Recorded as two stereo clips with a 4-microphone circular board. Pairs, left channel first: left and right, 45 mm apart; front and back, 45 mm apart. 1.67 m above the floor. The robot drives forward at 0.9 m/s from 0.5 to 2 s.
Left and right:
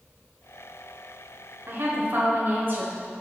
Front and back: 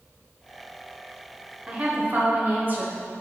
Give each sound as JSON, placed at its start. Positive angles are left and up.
{"t": 1.7, "sound": "a woman speaking", "azimuth_deg": -115, "distance_m": 0.8}